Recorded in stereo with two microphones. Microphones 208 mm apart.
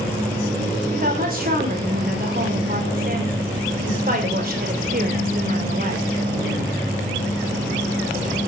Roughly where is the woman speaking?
Right.